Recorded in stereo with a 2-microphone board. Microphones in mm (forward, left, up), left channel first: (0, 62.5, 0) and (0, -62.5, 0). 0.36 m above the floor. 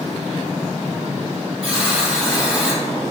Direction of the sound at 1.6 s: 10° right (ahead or behind).